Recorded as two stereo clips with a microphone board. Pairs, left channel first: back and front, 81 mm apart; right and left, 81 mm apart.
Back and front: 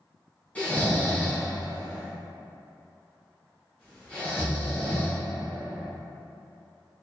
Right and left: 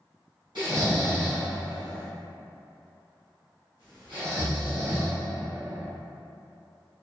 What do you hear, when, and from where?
0.6 s snoring: 105° left, 1.9 m